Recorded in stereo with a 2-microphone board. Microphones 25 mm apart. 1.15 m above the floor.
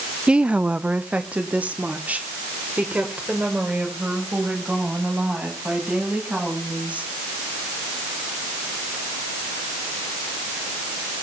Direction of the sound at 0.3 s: 45° right (ahead or behind).